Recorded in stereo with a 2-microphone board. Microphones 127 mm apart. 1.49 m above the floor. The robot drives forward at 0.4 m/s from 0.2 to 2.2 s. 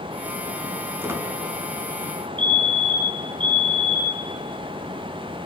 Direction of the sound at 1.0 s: 20° right (ahead or behind).